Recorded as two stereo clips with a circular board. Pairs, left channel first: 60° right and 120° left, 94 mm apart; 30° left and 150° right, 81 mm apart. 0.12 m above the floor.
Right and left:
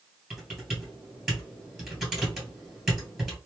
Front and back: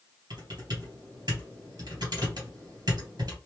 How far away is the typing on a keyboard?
About 2 m.